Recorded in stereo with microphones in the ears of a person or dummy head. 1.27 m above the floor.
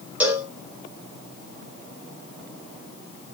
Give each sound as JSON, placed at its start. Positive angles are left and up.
{"t": 0.2, "sound": "a cowbell", "side_deg": -5, "distance_m": 0.5}